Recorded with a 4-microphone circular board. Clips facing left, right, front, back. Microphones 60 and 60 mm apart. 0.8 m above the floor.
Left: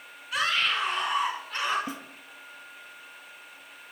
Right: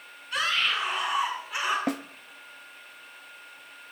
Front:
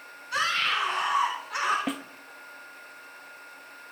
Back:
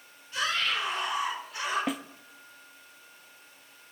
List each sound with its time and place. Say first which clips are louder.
0.3 s a scream: even, front 3 dB; straight ahead, 8 m; by 1.8 s 15° right, 8 m
1.9 s a snare drum: right 8 dB, even; 90° right, 0.8 m